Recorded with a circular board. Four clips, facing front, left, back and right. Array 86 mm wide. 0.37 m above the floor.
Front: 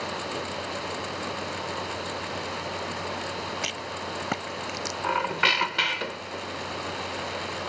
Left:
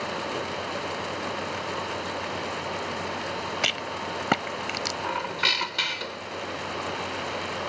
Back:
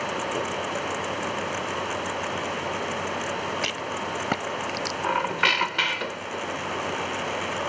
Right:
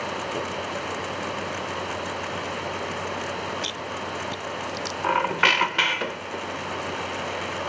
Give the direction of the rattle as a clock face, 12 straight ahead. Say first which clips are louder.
Left 1 dB, back 4 dB; 8 o'clock.